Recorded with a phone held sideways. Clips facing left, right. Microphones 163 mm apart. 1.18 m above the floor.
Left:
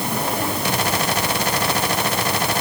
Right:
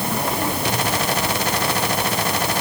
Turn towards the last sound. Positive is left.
No sound to turn to.